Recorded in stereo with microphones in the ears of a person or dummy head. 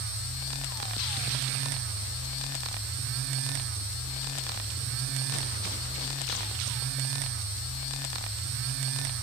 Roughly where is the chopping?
No chopping in this recording.